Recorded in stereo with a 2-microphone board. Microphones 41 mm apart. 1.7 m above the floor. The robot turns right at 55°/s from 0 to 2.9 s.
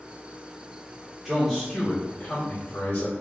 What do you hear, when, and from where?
1.2 s a man speaking: 10° right, 1.7 m; by 3.2 s 80° left, 1.7 m